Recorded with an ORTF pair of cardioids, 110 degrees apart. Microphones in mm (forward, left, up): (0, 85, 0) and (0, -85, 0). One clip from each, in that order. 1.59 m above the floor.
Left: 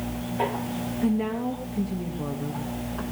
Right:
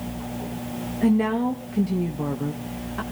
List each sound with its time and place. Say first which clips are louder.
1.0 s a woman speaking: right 6 dB; 35° right, 1.9 m